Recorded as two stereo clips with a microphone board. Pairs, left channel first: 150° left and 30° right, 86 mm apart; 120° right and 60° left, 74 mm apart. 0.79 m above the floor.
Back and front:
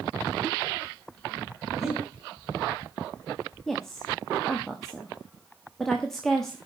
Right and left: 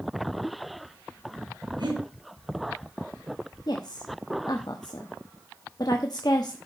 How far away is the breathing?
About 5 m.